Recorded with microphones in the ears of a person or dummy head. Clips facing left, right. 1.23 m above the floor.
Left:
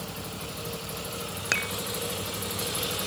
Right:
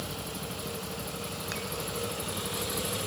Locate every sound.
1.5 s dishes clattering: 80° left